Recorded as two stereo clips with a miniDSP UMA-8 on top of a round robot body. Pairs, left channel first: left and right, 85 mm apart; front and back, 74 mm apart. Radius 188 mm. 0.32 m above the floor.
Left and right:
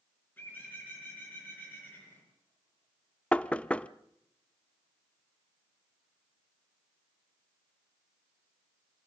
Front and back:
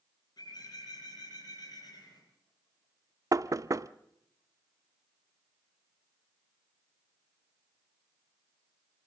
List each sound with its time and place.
0.4 s a bird: 25° left, 9.5 m
3.3 s knocking: 165° left, 0.8 m